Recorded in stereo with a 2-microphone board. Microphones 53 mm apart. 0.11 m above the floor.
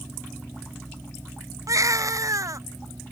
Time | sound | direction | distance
1.7 | a baby crying | 70° right (ahead or behind) | ?